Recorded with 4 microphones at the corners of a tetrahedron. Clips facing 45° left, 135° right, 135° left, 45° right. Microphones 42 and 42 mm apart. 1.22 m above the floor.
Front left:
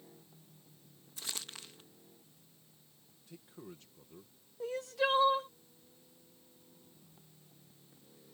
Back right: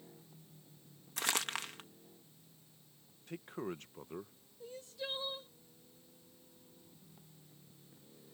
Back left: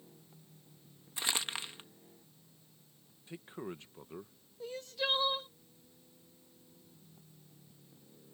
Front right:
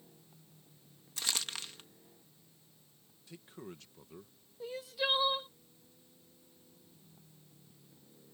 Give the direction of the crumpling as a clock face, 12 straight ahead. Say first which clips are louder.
Back right 10 dB, back left 2 dB; 5 o'clock.